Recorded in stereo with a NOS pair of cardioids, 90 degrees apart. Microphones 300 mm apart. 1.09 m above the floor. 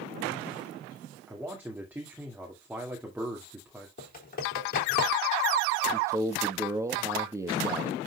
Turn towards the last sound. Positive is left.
turn(degrees=-10)